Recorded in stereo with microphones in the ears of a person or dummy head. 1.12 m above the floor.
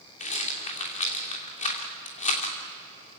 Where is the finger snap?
I don't hear a finger snap.